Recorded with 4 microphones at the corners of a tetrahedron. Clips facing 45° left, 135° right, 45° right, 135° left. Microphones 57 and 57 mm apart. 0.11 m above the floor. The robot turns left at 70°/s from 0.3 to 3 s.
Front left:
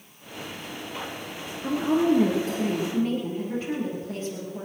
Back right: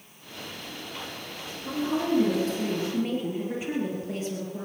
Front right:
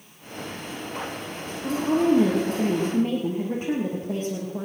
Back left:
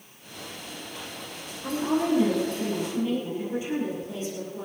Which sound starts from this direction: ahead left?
A woman speaking, at 1.6 s.